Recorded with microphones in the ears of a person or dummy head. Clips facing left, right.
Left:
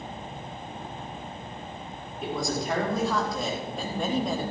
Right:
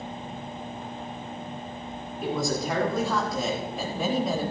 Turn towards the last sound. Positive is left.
turn(degrees=-5)  # may be behind; listen again after turning